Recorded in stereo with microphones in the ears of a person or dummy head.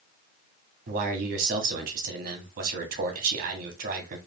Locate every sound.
0.9 s a man speaking: 45° right (ahead or behind), 1.3 m